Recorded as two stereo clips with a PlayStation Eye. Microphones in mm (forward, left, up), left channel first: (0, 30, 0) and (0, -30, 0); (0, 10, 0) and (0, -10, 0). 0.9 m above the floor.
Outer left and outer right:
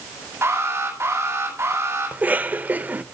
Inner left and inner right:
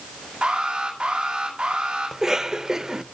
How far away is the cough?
About 0.8 m.